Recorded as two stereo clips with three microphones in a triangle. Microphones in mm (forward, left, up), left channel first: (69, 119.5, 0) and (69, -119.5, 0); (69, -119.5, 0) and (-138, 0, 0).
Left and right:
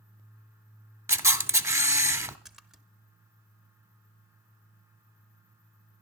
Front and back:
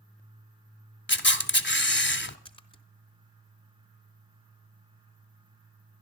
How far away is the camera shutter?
About 0.7 m.